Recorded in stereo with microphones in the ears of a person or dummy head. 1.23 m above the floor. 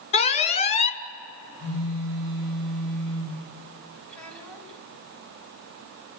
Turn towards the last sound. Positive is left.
turn(degrees=5)  # may be behind; listen again after turning